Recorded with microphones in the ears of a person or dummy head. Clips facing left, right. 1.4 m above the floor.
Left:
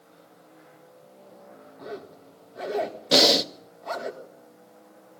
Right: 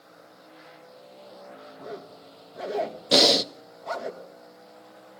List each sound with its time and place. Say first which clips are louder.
1.8 s a zipper: left 2 dB; centre (ahead or behind), 2 m
3.1 s breathing: even; centre (ahead or behind), 0.6 m